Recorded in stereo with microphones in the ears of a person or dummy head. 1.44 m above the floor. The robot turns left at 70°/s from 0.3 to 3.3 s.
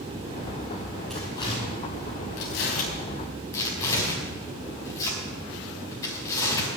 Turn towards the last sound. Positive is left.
turn(degrees=20)  # may be behind; listen again after turning